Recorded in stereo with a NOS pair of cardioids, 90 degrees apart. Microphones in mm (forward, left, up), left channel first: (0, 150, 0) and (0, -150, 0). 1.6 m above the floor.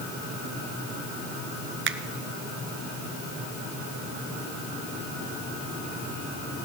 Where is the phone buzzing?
No phone buzzing in this recording.